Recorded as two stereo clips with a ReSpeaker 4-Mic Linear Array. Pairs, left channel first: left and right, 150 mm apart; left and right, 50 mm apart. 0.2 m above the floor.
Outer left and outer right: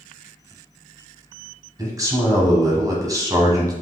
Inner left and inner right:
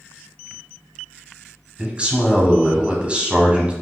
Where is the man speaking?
25° right (ahead or behind), 1.0 m.